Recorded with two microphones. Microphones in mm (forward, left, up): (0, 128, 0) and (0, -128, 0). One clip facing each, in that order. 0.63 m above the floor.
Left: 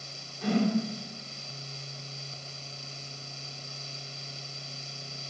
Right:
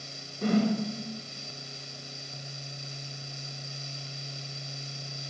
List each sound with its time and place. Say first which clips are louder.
0.4 s a whoosh: right 1 dB; 50° right (ahead or behind), 1.7 m